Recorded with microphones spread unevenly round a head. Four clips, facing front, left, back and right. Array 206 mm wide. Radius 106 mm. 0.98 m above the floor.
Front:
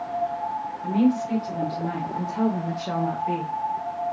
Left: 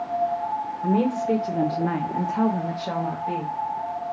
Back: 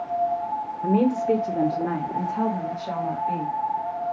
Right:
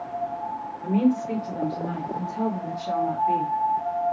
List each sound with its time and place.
0.8 s a woman speaking: 155° left, 0.9 m; by 3.5 s 45° left, 1.2 m